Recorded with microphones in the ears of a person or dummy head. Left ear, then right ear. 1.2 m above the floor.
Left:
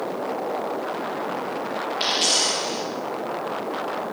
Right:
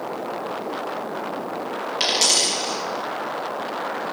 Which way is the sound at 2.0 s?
40° right (ahead or behind).